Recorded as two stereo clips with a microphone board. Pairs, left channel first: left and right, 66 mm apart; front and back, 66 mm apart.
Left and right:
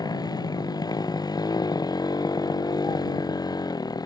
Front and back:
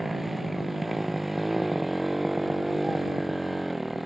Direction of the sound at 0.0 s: 95° left.